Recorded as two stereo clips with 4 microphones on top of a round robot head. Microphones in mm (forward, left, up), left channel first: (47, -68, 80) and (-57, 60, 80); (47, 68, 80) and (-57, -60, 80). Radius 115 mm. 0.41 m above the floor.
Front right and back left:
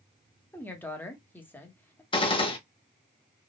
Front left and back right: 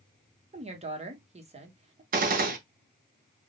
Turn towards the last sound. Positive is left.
turn(degrees=-105)